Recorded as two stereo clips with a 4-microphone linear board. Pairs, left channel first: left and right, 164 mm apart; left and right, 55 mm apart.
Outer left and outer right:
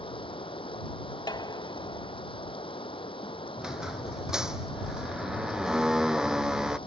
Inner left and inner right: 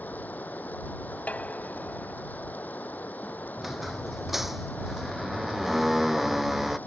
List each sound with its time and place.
0.0 s running water: 35° left (ahead or behind)
1.3 s dishes clattering: 30° left (ahead or behind)
3.6 s a squeak: 5° right (ahead or behind)